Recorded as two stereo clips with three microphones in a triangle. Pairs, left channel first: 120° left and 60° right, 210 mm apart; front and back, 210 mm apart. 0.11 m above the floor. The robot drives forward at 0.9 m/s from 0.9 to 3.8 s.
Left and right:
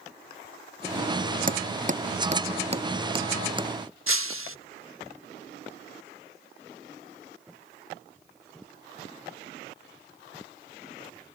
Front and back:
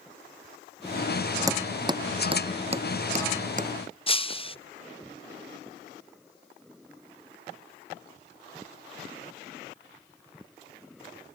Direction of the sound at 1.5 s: 105° right.